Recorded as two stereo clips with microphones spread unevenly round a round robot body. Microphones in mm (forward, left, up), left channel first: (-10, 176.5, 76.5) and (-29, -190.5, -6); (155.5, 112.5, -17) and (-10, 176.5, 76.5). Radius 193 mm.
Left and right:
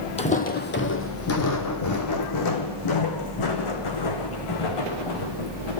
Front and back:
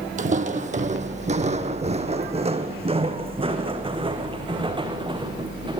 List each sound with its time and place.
0.2 s footsteps: 155° left, 2.0 m; by 5.8 s 100° left, 5.5 m